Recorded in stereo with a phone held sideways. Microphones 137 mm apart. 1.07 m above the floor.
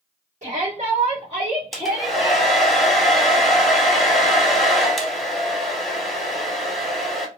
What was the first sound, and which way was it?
A shout, 55° right (ahead or behind).